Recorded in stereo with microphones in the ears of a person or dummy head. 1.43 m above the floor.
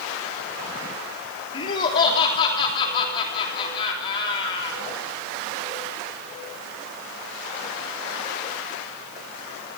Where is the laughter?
30° left (ahead or behind), 3 m.